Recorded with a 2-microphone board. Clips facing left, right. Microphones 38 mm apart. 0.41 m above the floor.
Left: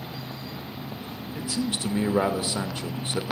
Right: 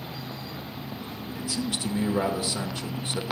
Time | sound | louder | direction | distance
1.4 | a man speaking | left 2 dB | 30° left (ahead or behind) | 0.8 m